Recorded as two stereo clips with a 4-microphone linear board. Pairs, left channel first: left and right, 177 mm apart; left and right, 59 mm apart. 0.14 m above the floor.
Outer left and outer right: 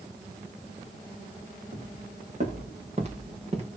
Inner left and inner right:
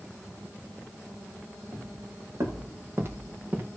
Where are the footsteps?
45° right (ahead or behind), 4.5 m; by 3.7 s 35° right (ahead or behind), 4.5 m.